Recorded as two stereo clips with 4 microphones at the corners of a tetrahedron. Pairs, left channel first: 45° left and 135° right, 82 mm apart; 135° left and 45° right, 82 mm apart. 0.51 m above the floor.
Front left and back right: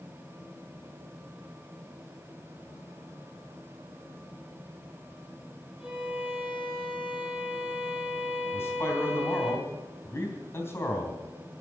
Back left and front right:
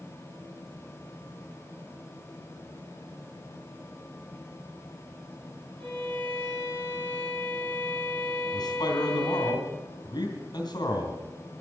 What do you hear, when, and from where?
5.8 s a violin: 50° right, 5.5 m
8.5 s a man speaking: 105° left, 3 m